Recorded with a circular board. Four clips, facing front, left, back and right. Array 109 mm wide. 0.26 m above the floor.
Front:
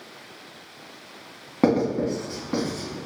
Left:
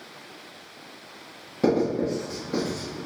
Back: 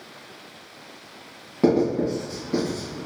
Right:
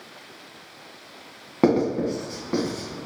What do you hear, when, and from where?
1.6 s writing: 60° right, 2 m